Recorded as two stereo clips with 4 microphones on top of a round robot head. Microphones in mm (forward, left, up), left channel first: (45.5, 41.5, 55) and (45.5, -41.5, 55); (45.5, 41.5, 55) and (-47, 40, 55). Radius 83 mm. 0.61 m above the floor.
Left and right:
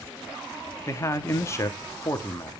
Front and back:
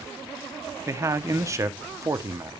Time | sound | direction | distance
0.9 | a man speaking | 135° left | 1.0 m